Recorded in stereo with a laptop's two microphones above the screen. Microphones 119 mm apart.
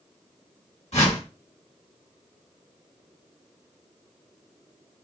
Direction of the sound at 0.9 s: 70° left (ahead or behind).